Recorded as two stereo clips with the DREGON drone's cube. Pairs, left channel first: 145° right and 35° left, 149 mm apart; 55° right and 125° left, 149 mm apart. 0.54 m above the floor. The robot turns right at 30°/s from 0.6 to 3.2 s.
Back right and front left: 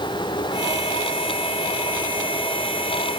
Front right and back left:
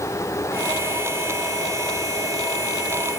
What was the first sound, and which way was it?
Only background noise.